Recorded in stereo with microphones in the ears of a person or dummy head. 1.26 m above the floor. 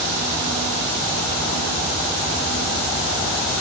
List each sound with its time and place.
Only background noise.